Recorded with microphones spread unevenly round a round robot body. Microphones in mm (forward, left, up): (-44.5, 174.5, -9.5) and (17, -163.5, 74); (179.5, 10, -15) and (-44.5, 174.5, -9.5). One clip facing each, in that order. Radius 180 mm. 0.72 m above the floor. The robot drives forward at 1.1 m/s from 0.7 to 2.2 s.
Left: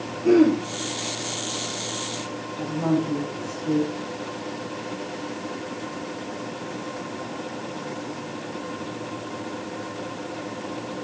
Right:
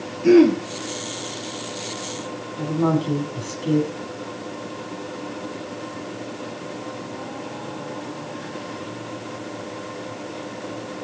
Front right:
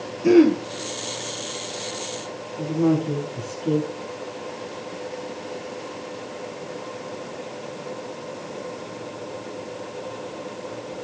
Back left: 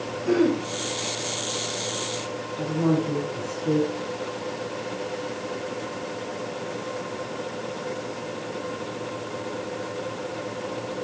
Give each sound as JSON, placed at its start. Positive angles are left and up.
{"t": 0.2, "sound": "throat clearing", "azimuth_deg": -35, "distance_m": 2.5}
{"t": 2.6, "sound": "a woman speaking", "azimuth_deg": -110, "distance_m": 5.5}